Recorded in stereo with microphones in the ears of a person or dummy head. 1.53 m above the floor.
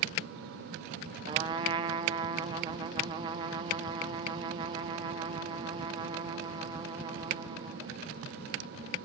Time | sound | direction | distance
1.3 | a trumpet | 25° right (ahead or behind) | 1.1 m